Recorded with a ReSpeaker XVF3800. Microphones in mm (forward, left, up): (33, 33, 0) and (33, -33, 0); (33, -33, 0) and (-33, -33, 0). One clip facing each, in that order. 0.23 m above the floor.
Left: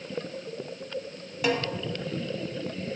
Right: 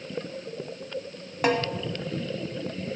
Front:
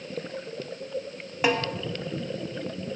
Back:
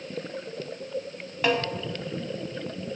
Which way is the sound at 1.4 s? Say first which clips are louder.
Right 3 dB, even; 70° right.